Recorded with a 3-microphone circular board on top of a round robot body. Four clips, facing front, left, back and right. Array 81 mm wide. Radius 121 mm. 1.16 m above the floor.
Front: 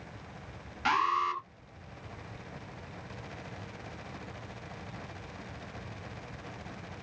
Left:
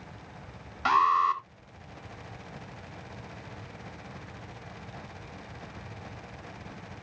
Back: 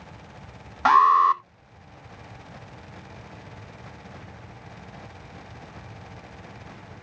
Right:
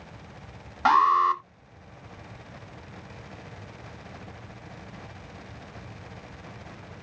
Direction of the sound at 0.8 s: 150° right.